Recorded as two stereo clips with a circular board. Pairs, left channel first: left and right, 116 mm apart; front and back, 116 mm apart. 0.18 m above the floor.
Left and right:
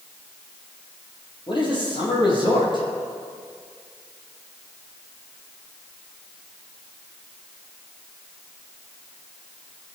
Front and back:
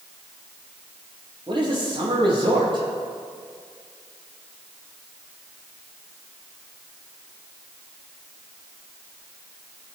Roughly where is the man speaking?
Behind left.